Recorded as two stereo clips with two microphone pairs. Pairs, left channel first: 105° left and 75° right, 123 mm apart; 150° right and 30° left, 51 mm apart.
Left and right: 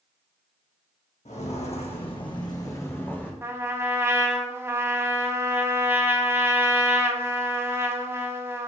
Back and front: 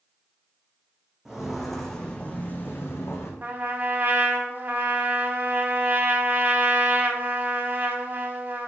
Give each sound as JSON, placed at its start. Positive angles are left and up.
{"t": 1.2, "sound": "footsteps", "azimuth_deg": 110, "distance_m": 1.5}
{"t": 3.4, "sound": "a trumpet", "azimuth_deg": -10, "distance_m": 0.6}